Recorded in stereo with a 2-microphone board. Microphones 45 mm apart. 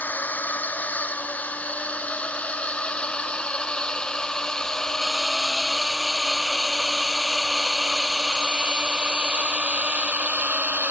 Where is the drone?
40° left (ahead or behind); by 10.9 s 35° right (ahead or behind).